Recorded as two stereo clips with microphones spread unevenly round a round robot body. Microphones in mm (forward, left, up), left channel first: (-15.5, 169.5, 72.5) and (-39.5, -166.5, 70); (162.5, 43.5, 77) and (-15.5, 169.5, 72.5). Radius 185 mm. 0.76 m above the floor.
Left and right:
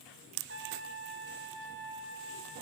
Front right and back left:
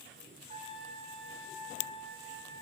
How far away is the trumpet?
About 1.9 m.